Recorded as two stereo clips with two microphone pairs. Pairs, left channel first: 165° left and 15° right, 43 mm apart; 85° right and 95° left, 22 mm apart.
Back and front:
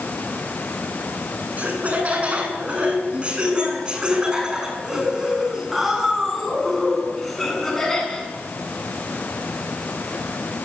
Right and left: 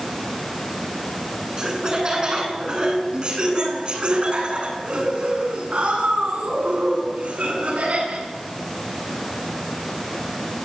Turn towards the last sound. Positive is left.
turn(degrees=90)